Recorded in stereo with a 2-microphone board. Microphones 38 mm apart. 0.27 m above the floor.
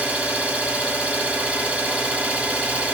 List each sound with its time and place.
0.0 s an engine running: 35° right (ahead or behind), 1.3 m